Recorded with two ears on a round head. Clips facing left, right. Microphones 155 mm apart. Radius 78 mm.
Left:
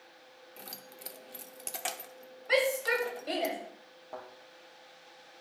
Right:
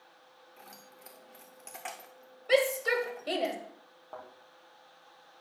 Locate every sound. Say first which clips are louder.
0.6 s keys jangling: left 4 dB; 35° left (ahead or behind), 0.7 m
2.5 s a shout: right 2 dB; 40° right (ahead or behind), 1.9 m
4.1 s a thud: left 2 dB; 15° left (ahead or behind), 3.5 m